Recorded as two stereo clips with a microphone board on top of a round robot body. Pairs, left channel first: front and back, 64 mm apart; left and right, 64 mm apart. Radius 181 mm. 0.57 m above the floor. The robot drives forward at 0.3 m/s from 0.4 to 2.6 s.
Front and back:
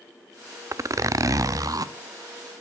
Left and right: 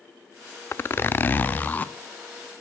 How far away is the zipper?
About 0.6 m.